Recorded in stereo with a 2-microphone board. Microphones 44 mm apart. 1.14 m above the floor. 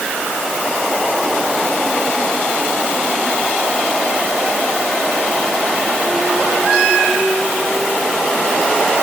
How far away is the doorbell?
I don't hear a doorbell.